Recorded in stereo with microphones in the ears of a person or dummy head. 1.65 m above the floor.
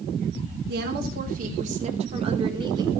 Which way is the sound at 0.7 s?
65° right (ahead or behind).